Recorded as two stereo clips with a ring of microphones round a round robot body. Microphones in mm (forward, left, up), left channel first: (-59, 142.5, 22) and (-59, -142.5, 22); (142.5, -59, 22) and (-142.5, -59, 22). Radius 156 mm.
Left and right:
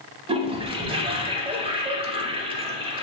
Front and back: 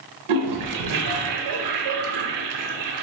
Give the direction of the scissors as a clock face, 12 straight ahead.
No scissors in this recording.